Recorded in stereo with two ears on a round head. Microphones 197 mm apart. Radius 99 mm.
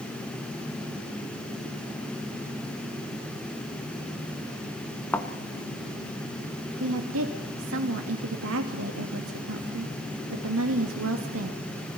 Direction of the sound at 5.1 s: 10° left (ahead or behind).